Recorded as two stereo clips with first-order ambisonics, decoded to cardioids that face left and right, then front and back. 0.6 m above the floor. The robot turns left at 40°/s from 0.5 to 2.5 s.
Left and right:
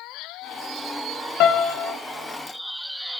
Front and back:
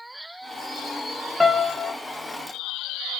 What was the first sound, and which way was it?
A piano, 80° left.